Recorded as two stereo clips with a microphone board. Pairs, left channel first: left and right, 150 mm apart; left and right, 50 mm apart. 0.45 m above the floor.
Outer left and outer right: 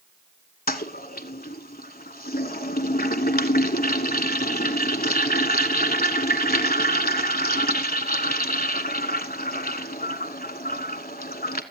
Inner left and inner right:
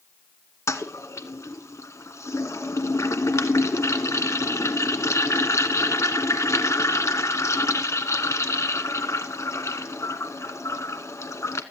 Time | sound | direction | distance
0.7 | a toilet flushing | 75° left (ahead or behind) | 0.9 m